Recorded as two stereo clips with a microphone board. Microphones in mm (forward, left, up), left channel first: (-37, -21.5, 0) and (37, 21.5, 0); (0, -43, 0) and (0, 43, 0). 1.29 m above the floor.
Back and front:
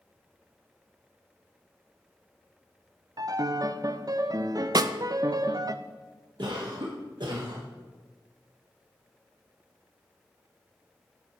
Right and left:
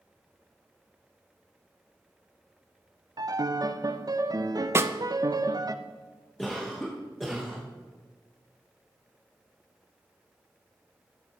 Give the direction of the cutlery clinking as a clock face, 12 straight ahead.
No cutlery clinking in this recording.